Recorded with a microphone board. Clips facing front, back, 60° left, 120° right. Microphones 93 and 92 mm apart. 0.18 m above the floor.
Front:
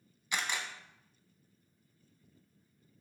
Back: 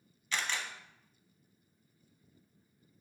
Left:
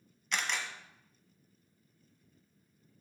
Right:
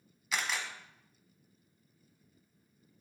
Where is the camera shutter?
45° right, 0.9 m.